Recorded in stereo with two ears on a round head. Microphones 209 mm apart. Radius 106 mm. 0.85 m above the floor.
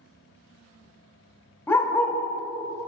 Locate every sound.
1.7 s a dog barking: 10° left (ahead or behind), 0.9 m